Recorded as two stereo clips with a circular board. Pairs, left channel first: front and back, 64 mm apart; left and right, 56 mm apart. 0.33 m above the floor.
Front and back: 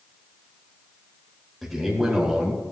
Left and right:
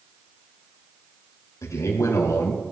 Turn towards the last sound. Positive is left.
turn(degrees=100)